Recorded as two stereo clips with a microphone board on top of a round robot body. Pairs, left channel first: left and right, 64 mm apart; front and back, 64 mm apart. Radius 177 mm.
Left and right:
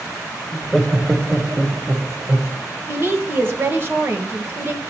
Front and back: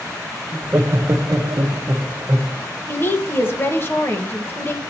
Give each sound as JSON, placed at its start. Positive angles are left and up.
{"t": 0.5, "sound": "laughter", "azimuth_deg": 165, "distance_m": 0.7}
{"t": 2.9, "sound": "a woman speaking", "azimuth_deg": -45, "distance_m": 1.3}